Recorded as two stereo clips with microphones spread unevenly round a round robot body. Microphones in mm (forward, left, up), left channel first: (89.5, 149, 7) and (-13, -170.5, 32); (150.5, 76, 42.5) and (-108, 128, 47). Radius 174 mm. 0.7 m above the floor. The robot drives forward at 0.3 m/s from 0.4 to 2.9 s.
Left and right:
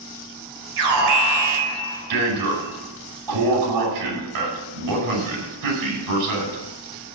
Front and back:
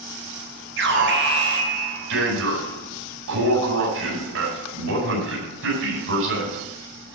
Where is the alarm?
140° right, 5 m; by 6.7 s 145° right, 5.5 m.